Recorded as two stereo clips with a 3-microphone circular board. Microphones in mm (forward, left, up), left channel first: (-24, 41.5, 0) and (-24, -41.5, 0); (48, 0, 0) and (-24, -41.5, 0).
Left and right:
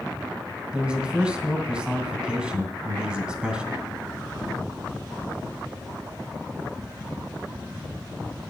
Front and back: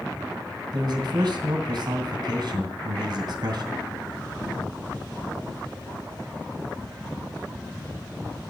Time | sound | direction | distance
0.7 | a man speaking | 170° right | 2 m